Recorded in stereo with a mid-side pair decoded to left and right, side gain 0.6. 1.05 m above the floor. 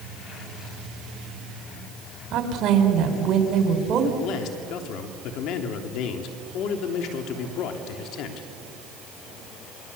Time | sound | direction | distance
2.3 | a woman speaking | 55° right | 4 m
4.2 | a man speaking | 65° left | 3 m